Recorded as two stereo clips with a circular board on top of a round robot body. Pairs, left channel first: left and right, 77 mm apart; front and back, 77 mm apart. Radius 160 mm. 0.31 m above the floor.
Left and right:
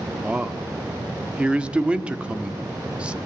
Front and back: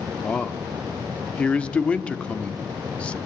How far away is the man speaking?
About 1.4 m.